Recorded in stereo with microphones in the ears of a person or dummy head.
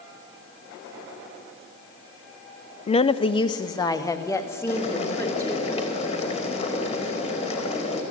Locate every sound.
2.9 s a woman speaking: 30° left (ahead or behind), 0.6 m; by 5.7 s 10° left (ahead or behind), 2.5 m
4.7 s boiling: 30° left (ahead or behind), 3 m